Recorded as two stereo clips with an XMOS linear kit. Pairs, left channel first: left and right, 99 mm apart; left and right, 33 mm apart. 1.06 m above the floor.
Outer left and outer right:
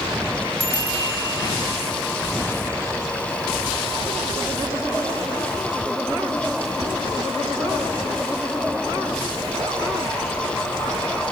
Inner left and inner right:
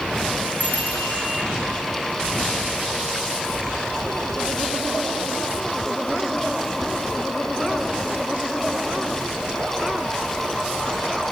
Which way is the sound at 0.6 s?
60° left (ahead or behind).